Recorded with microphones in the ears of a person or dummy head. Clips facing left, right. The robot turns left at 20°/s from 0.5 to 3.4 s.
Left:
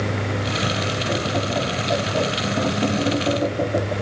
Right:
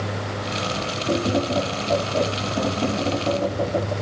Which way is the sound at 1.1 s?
150° right.